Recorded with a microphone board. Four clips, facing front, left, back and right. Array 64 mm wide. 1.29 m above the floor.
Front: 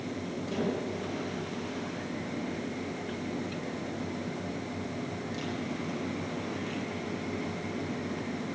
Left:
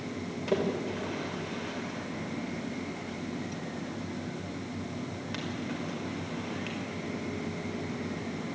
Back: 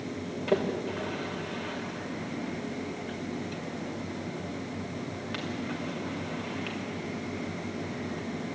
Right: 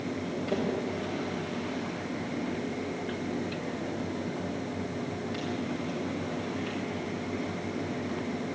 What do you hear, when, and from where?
0.5 s a splash: 160° left, 5 m